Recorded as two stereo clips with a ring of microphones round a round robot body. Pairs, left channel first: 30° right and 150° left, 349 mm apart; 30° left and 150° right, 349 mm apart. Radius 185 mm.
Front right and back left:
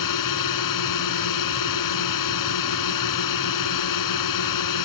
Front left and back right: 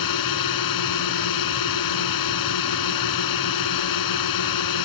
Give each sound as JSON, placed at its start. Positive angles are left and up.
{"t": 0.0, "sound": "a drone", "azimuth_deg": 0}